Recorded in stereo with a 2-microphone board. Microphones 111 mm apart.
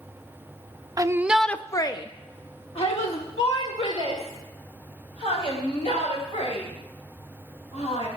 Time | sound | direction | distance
1.0 | a shout | 35° right (ahead or behind) | 0.5 m